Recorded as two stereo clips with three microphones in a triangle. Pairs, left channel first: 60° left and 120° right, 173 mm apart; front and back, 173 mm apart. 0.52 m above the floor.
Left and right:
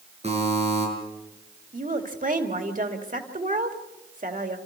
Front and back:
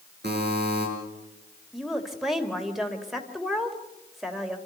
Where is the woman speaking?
90° right, 2.5 m.